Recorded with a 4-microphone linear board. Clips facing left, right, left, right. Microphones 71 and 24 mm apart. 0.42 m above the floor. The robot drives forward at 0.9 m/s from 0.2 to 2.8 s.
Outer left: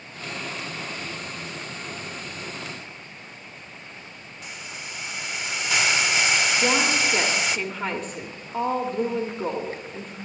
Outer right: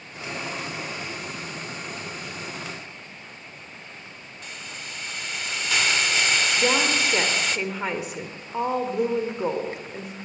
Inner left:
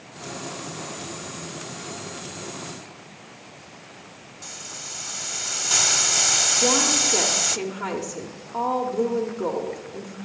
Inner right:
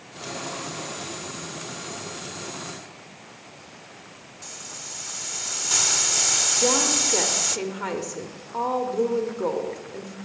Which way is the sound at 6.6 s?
10° right (ahead or behind).